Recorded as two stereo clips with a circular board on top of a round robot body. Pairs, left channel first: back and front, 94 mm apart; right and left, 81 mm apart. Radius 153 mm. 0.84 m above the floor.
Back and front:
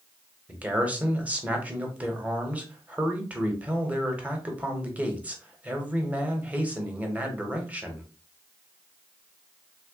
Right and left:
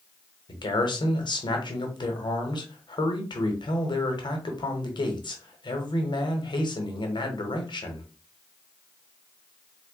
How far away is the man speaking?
About 1.1 m.